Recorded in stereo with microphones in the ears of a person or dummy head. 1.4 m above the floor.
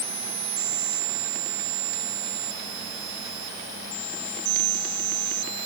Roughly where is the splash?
No splash in this recording.